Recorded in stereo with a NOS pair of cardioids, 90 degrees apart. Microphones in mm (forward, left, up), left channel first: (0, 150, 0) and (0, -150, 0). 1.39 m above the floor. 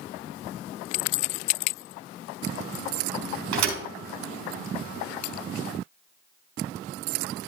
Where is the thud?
65° right, 4 m.